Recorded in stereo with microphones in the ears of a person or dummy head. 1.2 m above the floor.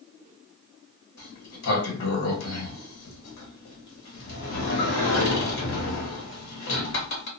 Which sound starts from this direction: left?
A sliding door, at 1.2 s.